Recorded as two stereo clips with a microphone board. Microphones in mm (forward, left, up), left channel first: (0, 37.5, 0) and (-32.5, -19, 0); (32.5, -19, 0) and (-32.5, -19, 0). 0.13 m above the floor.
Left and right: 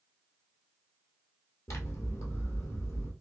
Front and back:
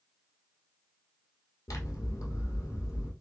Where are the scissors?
30° left, 1.3 m.